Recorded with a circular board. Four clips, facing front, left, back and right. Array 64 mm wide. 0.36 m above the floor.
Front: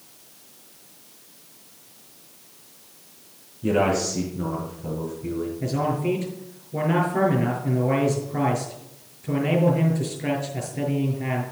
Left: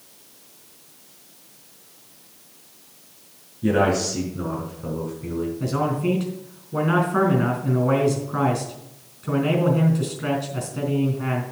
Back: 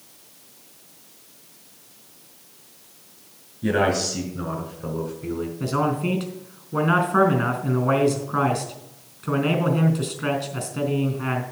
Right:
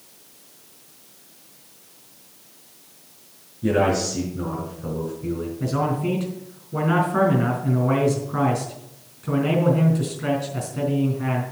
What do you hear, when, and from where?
3.6 s a man speaking: 160° left, 5 m; by 5.5 s 145° left, 3 m
5.6 s a man speaking: 170° left, 4 m